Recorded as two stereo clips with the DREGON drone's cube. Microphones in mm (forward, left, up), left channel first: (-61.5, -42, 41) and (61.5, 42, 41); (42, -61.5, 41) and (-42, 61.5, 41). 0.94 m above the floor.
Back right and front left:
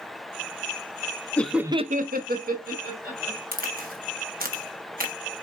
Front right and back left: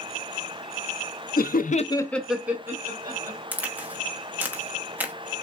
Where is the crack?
45° left, 0.9 m.